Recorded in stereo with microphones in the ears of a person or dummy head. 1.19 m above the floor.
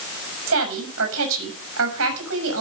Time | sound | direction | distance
0.5 | a woman speaking | 65° right (ahead or behind) | 6 m